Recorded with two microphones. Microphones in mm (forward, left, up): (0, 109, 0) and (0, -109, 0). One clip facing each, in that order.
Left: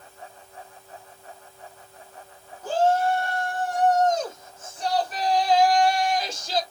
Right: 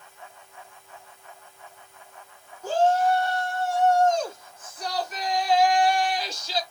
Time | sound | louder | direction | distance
2.6 | a shout | even | 10° left (ahead or behind) | 3.5 m